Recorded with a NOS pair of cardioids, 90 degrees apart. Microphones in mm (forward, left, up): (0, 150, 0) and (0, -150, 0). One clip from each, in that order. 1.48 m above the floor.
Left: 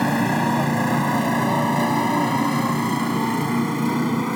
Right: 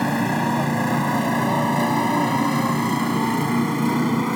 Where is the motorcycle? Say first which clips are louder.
Left 1 dB; straight ahead; by 4.4 s 20° right.